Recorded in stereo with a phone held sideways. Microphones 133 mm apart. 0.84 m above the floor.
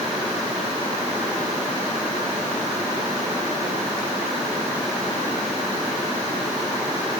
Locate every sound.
Only background noise.